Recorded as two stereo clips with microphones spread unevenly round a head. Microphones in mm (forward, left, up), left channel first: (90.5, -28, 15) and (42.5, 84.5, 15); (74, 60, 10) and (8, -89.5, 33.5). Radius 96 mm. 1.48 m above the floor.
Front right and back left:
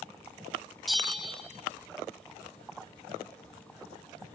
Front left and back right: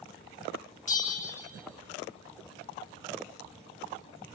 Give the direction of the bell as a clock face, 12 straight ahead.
11 o'clock.